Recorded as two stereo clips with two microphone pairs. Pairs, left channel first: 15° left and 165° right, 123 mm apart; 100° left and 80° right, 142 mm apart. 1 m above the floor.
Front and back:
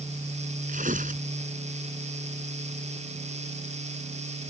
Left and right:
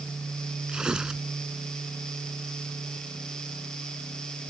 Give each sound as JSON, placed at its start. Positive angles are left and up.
{"t": 0.7, "sound": "tearing paper", "azimuth_deg": -165}